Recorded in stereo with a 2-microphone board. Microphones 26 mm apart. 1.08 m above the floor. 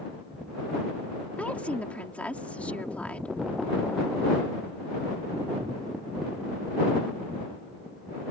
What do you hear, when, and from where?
1.4 s a woman speaking: 65° left (ahead or behind)